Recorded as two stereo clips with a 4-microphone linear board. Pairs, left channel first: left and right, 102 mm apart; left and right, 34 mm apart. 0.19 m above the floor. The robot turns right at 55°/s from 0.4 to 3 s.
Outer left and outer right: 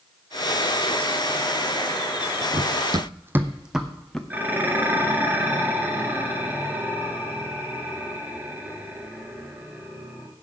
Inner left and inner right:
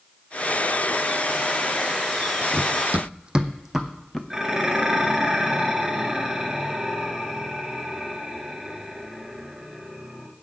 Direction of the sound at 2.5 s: 60° right (ahead or behind).